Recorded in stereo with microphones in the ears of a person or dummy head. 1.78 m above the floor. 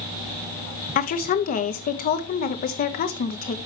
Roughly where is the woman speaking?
Left.